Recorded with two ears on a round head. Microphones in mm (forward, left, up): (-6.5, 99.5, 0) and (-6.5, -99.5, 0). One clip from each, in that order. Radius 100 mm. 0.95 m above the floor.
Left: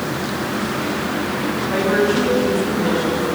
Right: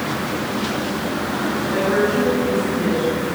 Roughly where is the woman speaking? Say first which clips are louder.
Left 2 dB; centre.